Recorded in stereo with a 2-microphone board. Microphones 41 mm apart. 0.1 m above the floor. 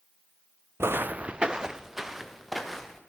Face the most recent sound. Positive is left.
turn(degrees=0)  # may be behind; listen again after turning